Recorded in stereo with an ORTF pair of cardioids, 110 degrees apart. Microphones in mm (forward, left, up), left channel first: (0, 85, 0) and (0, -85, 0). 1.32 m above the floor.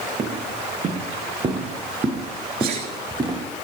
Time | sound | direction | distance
0.2 | footsteps | 35° right | 6 m
2.6 | a sneeze | 60° right | 3 m